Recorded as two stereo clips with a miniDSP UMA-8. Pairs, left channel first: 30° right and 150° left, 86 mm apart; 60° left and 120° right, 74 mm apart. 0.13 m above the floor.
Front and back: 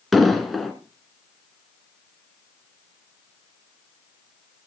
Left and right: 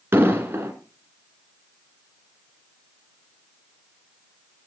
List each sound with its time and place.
0.1 s an explosion: 120° right, 1.9 m